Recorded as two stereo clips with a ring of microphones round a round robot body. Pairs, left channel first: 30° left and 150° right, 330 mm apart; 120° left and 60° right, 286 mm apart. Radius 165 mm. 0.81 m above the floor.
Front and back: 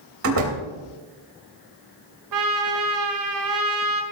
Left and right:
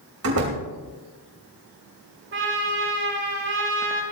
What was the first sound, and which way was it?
A door slam, 110° right.